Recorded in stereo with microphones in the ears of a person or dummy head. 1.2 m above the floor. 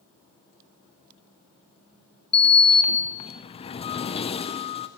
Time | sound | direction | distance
2.3 | a sliding door | 30° left (ahead or behind) | 0.7 m